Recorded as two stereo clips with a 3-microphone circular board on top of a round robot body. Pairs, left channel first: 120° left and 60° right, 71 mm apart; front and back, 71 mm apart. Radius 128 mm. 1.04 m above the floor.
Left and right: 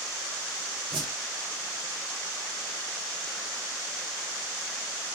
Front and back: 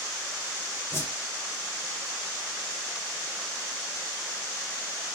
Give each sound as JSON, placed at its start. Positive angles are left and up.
{"t": 0.9, "sound": "a whoosh", "azimuth_deg": -55, "distance_m": 1.3}